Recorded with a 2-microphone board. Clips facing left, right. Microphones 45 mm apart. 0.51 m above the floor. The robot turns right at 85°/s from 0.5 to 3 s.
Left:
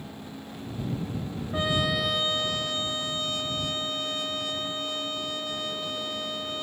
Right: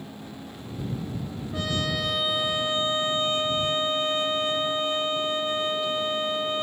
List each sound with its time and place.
1.5 s a trumpet: 130° left; by 6.6 s 105° right